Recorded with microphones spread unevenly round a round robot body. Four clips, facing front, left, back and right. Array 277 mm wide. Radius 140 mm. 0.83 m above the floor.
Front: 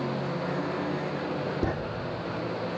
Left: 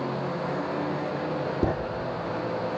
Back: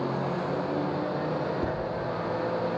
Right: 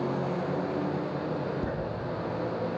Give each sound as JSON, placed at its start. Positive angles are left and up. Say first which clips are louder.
{"t": 1.6, "sound": "writing", "louder": "left 8 dB, front 1 dB", "azimuth_deg": 75, "distance_m": 1.7}